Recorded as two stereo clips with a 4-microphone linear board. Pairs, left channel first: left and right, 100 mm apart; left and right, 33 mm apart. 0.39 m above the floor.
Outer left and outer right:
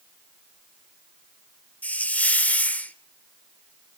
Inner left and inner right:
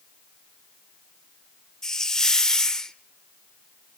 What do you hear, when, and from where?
1.8 s a hiss: 15° left (ahead or behind), 0.8 m